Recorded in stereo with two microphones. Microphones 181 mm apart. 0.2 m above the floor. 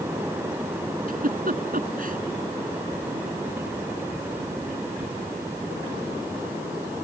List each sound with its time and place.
1.1 s a giggle: 55° right (ahead or behind)